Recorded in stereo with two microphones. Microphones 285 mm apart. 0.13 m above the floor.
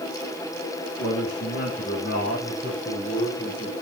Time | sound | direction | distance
1.0 | a man speaking | 35° left (ahead or behind) | 7 m